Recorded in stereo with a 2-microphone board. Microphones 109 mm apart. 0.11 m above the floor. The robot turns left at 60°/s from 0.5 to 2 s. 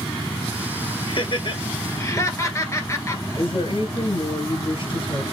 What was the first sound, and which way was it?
Laughter, 50° left (ahead or behind).